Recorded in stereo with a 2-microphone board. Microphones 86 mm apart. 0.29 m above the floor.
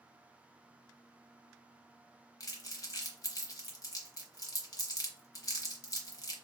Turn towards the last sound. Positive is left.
turn(degrees=45)  # may be behind; listen again after turning